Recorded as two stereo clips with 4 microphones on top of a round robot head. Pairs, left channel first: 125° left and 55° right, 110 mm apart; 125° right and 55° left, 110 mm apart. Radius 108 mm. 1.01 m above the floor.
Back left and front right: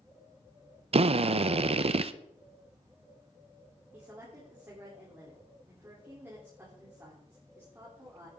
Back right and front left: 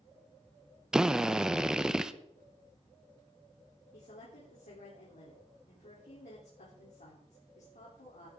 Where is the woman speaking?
120° right, 3.5 m.